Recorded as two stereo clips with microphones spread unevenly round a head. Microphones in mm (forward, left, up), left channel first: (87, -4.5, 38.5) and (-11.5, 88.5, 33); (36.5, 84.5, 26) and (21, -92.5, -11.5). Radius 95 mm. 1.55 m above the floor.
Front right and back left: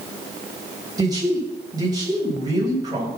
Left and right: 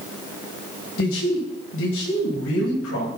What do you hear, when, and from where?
1.0 s a man speaking: 75° left, 9.5 m